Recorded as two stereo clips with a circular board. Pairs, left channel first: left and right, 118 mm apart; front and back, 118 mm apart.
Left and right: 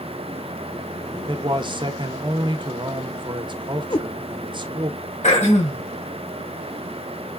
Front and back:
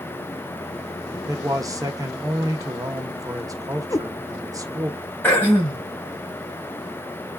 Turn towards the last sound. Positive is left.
turn(degrees=75)